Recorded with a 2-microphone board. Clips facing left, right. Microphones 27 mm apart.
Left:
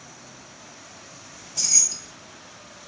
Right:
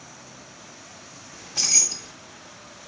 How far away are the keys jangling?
About 0.7 m.